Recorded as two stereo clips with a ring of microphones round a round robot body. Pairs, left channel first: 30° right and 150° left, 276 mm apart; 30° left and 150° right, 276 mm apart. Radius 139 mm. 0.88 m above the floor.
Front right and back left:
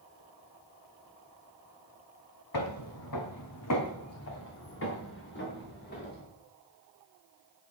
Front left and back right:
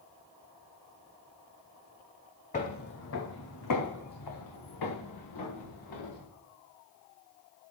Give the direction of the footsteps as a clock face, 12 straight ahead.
1 o'clock.